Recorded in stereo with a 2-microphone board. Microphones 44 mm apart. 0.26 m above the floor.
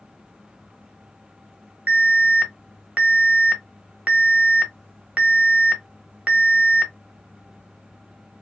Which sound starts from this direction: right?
An alarm, at 1.9 s.